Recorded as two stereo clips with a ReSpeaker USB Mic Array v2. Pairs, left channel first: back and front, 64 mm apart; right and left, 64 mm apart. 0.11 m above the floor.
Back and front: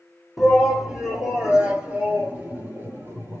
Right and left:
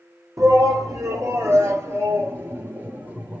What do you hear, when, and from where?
0.4 s a shout: 80° left, 2.5 m; by 3.4 s 30° left, 2 m